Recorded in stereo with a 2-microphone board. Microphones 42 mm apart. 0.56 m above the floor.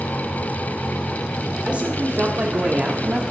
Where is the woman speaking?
35° right (ahead or behind), 1.8 m; by 3.2 s 25° right (ahead or behind), 1.1 m.